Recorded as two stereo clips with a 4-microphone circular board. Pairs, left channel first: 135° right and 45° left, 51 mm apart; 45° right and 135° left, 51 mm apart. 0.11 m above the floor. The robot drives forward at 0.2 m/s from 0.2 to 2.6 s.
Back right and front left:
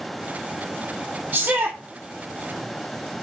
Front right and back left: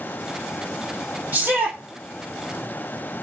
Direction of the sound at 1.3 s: 80° left.